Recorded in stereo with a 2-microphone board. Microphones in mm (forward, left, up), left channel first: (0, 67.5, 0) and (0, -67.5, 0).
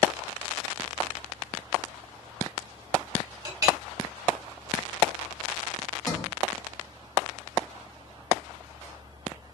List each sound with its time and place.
3.5 s a clink: 30° right (ahead or behind), 1.0 m
6.1 s a sliding door: 20° left (ahead or behind), 1.0 m